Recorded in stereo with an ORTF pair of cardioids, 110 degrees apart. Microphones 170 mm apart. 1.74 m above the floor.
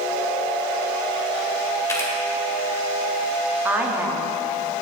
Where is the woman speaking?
10° right, 0.9 m.